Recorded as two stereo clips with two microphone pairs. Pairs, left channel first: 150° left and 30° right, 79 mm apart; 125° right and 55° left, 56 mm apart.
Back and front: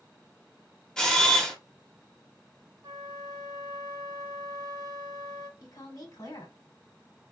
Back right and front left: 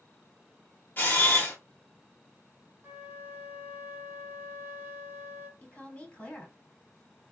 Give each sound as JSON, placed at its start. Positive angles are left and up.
{"t": 1.0, "sound": "a camera shutter", "azimuth_deg": -130, "distance_m": 1.0}
{"t": 2.8, "sound": "a flute", "azimuth_deg": 5, "distance_m": 0.5}
{"t": 5.6, "sound": "a woman speaking", "azimuth_deg": 170, "distance_m": 1.6}